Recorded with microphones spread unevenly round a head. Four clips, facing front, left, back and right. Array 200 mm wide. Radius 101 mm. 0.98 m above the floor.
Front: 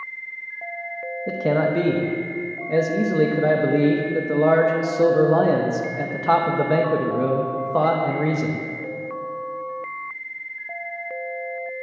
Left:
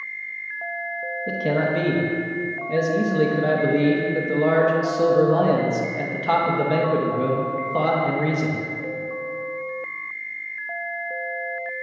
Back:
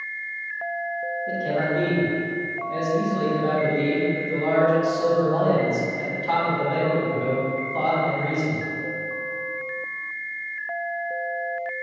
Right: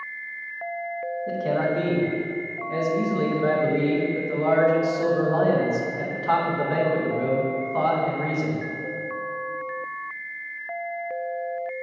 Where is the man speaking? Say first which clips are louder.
Left 2 dB, front 5 dB; 20° left, 0.8 m.